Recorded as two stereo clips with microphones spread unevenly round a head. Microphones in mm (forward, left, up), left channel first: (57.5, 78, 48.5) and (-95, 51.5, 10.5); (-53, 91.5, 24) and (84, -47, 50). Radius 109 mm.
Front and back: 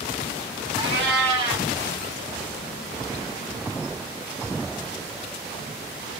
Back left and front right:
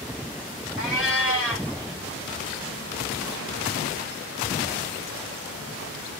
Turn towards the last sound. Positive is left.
turn(degrees=-130)